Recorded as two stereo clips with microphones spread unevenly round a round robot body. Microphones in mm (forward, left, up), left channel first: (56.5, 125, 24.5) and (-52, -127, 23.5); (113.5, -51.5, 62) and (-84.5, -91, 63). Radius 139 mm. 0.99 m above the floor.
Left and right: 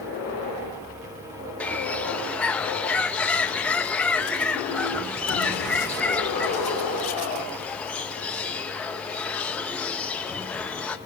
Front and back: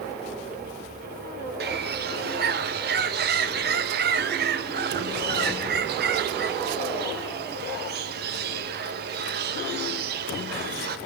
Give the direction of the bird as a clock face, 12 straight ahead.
7 o'clock.